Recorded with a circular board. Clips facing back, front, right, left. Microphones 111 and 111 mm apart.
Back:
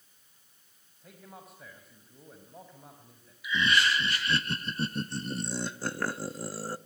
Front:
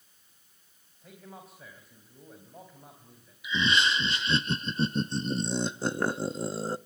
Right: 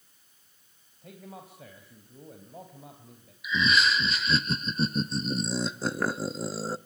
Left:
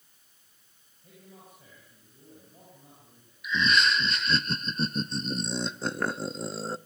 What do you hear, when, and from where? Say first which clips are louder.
1.0 s a man speaking: front 2 dB, right 7 dB; 90° right, 3.5 m
3.4 s laughter: even, even; 10° right, 0.5 m